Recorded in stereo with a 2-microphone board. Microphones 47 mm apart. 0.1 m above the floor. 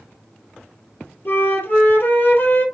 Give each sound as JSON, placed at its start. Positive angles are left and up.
{"t": 1.2, "sound": "a flute", "side_deg": 45, "distance_m": 2.5}